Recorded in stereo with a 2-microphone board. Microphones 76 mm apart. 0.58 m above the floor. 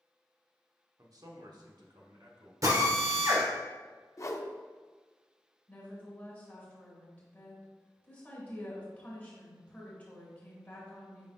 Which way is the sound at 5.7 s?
20° left (ahead or behind).